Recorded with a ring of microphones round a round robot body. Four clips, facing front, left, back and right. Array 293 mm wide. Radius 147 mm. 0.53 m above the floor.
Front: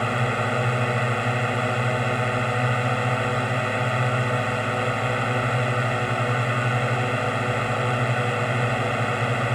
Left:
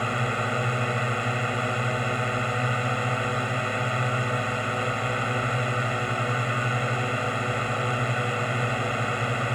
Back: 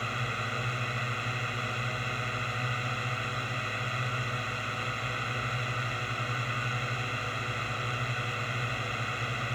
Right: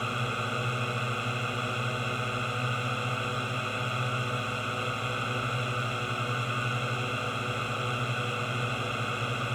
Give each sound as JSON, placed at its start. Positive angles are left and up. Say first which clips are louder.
{"t": 0.0, "sound": "a drone", "louder": "left 5 dB, front 11 dB", "azimuth_deg": 20}